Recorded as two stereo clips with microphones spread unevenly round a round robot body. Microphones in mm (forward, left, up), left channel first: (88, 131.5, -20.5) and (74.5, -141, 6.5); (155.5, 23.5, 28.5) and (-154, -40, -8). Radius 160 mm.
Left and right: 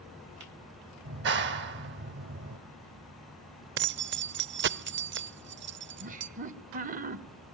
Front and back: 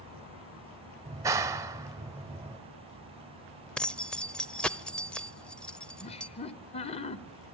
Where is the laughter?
55° right, 1.0 m.